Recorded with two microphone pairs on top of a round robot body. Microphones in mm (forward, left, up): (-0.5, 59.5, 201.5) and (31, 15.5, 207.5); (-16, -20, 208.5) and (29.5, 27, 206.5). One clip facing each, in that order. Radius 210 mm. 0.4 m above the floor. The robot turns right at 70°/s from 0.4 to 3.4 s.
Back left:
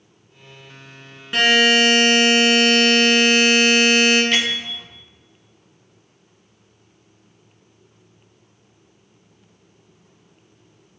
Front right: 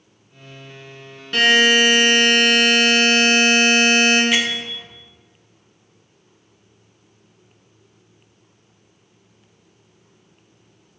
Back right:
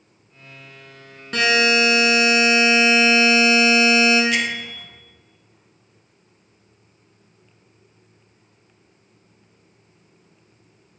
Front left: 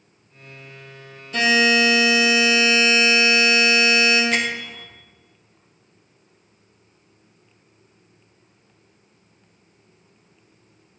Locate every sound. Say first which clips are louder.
1.3 s a buzzer: front right 1 dB, even; 160° right, 2.0 m; by 4.2 s 15° right, 2.0 m
4.3 s a bell: front right 1 dB, even; 30° left, 1.5 m